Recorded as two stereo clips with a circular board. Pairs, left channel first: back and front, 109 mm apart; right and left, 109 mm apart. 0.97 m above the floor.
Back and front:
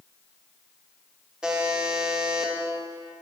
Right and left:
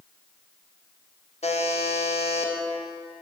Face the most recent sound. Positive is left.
turn(degrees=-80)